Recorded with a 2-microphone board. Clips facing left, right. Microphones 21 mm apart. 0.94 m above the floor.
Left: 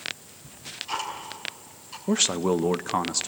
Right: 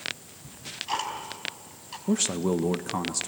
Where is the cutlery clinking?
I don't hear cutlery clinking.